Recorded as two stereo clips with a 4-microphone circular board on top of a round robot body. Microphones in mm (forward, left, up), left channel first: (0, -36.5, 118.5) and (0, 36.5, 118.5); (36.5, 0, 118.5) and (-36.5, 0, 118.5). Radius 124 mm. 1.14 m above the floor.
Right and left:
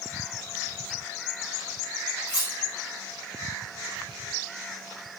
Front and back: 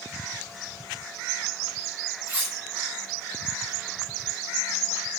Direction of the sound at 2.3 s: 115° right.